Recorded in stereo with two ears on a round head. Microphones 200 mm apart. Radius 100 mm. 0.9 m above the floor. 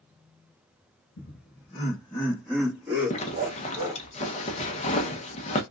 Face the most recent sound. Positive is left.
turn(degrees=30)  # may be behind; listen again after turning